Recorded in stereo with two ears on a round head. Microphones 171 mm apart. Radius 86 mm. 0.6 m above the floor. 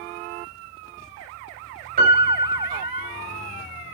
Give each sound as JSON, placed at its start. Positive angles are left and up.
{"t": 2.0, "sound": "a piano", "side_deg": -50, "distance_m": 2.5}